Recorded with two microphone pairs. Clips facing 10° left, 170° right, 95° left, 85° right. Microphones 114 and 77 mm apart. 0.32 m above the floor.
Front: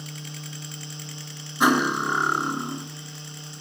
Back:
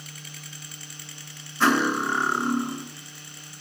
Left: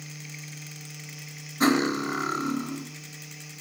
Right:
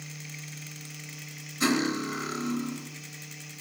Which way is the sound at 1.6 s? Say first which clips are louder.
Front 1 dB, left 4 dB; 75° left.